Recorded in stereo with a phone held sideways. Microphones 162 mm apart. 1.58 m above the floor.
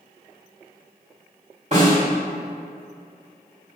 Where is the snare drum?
45° right (ahead or behind), 1.7 m.